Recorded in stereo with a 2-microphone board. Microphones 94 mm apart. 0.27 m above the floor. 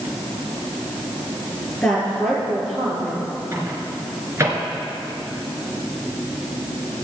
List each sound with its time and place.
1.8 s a woman speaking: 15° left (ahead or behind), 5 m
3.5 s a microwave: 30° right (ahead or behind), 2.5 m